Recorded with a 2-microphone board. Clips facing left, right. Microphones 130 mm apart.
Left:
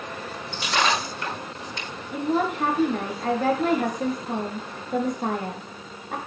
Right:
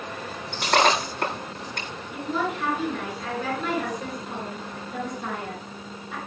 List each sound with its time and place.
0.5 s breaking glass: 55° right (ahead or behind), 9.5 m
2.1 s a woman speaking: 50° left (ahead or behind), 5.5 m